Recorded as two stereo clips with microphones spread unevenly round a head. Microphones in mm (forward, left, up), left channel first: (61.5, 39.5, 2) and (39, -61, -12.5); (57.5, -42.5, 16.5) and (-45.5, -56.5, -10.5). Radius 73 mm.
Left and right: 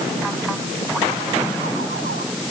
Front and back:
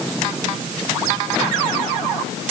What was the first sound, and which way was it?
Only background noise.